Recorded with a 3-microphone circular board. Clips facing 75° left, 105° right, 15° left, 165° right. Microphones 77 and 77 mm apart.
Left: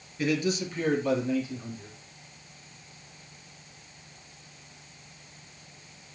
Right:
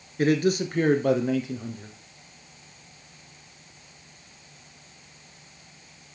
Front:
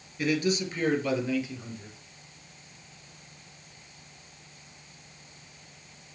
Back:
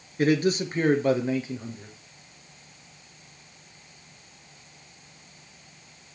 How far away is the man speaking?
About 2 m.